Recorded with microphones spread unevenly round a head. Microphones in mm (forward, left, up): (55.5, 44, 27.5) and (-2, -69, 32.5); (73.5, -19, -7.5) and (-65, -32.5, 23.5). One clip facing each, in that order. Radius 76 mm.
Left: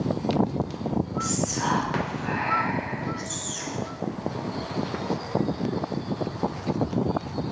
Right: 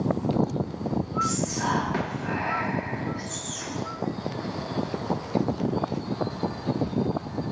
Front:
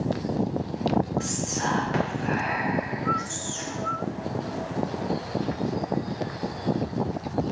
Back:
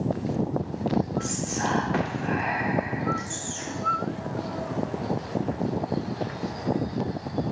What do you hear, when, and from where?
1.2 s whispering: 65° left, 1.8 m